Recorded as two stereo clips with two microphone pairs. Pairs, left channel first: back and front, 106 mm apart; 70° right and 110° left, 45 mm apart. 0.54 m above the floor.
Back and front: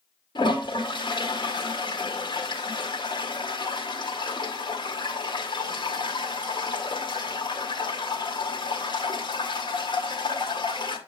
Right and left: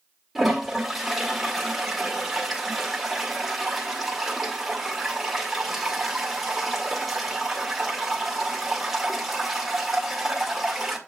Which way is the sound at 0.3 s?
165° right.